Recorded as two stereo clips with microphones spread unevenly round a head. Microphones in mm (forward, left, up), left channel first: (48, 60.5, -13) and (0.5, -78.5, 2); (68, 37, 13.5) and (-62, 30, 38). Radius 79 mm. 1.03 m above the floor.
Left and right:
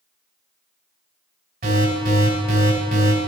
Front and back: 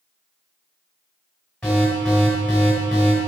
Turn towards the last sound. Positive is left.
turn(degrees=-85)